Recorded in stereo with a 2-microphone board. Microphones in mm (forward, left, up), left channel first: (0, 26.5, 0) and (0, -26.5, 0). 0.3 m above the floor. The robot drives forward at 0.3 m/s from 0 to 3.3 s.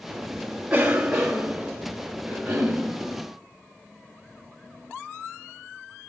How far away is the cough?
About 0.9 m.